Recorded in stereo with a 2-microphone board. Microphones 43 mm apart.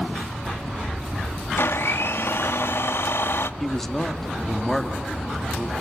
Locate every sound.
1.6 s a blender: 70° left (ahead or behind), 1.0 m
3.6 s a man speaking: 10° left (ahead or behind), 1.8 m